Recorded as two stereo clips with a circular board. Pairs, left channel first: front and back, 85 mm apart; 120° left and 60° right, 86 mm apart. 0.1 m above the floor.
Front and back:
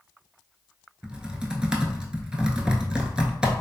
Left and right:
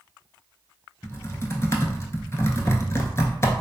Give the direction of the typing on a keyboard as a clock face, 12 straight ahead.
8 o'clock.